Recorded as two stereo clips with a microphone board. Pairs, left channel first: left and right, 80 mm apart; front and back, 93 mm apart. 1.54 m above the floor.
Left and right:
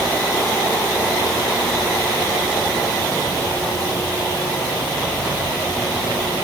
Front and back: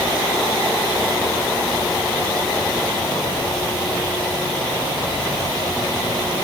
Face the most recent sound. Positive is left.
No sound to turn to.